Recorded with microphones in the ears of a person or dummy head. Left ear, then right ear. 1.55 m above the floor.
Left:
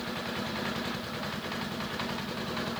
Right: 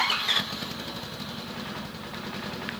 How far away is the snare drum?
I don't hear a snare drum.